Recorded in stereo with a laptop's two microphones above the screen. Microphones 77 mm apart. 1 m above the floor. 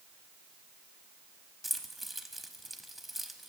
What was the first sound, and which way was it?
Keys jangling, centre (ahead or behind).